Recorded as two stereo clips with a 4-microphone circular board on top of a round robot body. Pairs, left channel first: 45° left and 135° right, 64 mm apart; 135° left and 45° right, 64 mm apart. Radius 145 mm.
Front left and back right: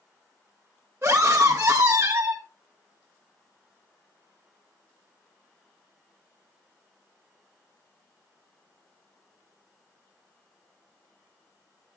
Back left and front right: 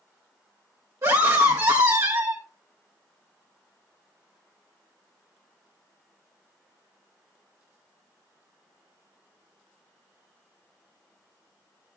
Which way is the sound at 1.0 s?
80° right.